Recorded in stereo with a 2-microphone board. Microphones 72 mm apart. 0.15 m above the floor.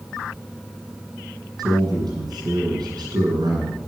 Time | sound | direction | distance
1.6 | a man speaking | 75° right (ahead or behind) | 7 m